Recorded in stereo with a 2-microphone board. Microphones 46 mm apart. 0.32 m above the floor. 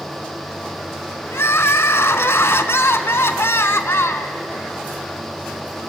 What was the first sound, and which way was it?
Crying, 65° left (ahead or behind).